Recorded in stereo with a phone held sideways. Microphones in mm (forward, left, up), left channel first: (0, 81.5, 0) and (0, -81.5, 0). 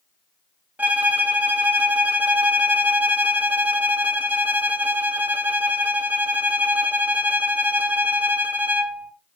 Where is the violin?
10° right (ahead or behind), 1.3 m.